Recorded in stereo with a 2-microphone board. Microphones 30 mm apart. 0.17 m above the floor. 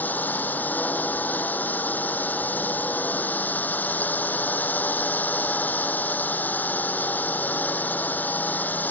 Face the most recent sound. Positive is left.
turn(degrees=75)  # may be behind; listen again after turning